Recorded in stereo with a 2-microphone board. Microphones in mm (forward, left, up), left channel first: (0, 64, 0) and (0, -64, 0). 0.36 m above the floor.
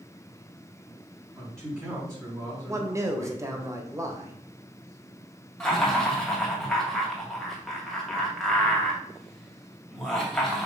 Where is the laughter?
5° left (ahead or behind), 2.5 m.